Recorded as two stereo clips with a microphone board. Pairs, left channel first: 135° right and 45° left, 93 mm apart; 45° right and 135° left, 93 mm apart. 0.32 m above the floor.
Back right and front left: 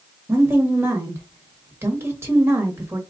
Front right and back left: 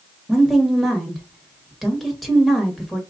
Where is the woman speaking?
45° left, 1.1 m.